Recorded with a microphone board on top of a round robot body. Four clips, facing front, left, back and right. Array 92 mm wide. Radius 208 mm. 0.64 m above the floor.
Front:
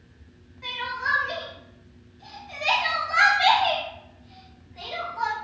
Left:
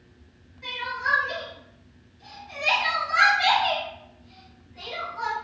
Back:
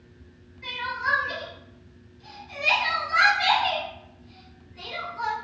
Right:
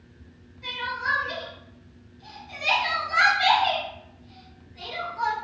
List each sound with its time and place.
0.6 s crying: 5° left, 0.6 m